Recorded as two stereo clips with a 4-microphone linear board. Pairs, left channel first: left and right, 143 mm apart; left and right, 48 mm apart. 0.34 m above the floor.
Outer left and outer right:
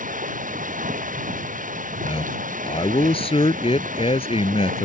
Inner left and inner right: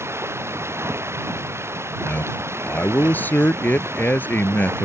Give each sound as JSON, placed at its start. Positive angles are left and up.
{"t": 0.0, "sound": "running water", "side_deg": -65}
{"t": 2.0, "sound": "a man speaking", "side_deg": 40}